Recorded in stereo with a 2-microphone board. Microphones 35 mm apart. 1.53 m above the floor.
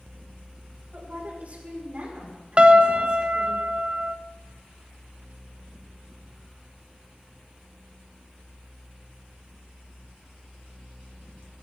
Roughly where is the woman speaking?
Right.